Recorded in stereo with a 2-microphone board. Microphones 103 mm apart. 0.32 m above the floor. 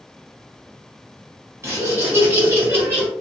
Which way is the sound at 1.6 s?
25° right (ahead or behind).